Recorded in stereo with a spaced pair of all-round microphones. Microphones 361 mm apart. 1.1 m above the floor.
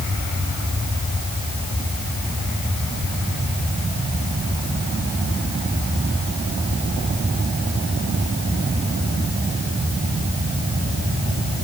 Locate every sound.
Only background noise.